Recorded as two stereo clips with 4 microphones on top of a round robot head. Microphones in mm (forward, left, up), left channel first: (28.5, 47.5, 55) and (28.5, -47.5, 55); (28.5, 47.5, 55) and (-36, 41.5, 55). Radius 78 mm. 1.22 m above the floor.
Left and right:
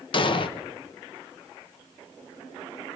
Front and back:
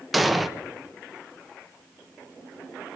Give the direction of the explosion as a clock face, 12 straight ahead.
9 o'clock.